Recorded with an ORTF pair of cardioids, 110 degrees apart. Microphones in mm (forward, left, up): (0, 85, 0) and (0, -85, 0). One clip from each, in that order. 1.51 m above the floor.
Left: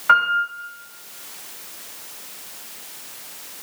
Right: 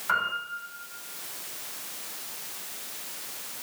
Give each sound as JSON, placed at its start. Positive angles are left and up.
{"t": 0.1, "sound": "a piano", "azimuth_deg": 55, "distance_m": 3.5}